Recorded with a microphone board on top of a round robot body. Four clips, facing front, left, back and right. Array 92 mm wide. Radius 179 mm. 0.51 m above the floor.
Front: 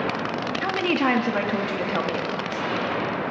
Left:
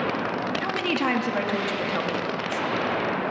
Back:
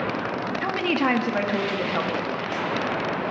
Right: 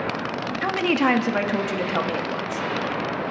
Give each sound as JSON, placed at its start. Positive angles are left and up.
{"t": 0.6, "sound": "a woman speaking", "azimuth_deg": -85, "distance_m": 1.2}